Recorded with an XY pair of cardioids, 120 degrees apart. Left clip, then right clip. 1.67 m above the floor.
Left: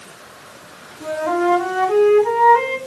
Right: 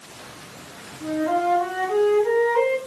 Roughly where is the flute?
Ahead left.